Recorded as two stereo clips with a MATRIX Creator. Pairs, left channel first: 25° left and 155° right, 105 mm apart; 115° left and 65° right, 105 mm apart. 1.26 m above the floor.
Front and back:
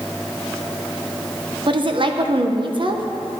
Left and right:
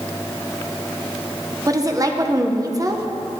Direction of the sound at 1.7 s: 125° right.